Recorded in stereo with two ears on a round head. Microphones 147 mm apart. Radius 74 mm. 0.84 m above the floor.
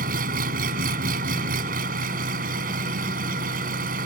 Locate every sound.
0.0 s an engine running: 55° right (ahead or behind)